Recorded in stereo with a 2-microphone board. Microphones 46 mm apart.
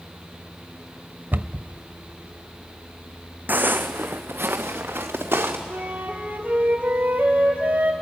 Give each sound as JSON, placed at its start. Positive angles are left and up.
{"t": 1.3, "sound": "a cupboard door", "side_deg": -45, "distance_m": 0.6}
{"t": 3.5, "sound": "footsteps", "side_deg": -40, "distance_m": 0.9}
{"t": 5.7, "sound": "a flute", "side_deg": -35, "distance_m": 2.0}